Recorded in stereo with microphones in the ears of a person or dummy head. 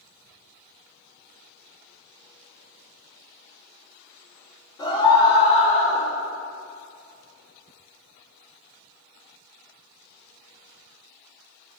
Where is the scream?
30° left (ahead or behind), 3.5 m; by 6.1 s 50° left (ahead or behind), 4 m.